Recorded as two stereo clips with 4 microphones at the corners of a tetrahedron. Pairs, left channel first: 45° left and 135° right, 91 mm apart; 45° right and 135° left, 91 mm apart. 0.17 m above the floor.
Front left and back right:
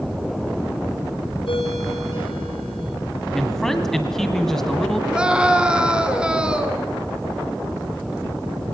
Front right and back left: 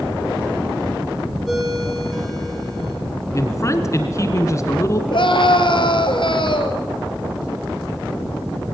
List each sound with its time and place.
1.5 s a ringtone: 45° left, 5 m
3.3 s a man speaking: 35° right, 2.0 m
5.1 s a scream: 55° right, 2.5 m